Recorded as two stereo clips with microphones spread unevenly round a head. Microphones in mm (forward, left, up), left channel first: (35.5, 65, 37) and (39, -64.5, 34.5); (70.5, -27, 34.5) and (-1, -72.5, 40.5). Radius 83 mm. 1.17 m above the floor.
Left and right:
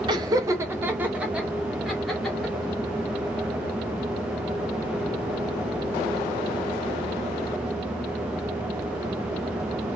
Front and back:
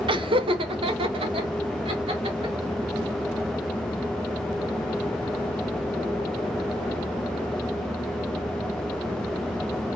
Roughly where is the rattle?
No rattle in this recording.